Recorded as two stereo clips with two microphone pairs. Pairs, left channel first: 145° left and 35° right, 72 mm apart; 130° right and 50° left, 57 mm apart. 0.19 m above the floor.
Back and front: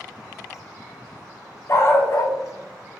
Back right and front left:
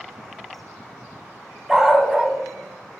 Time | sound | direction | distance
1.7 | a dog barking | 125° left | 0.6 m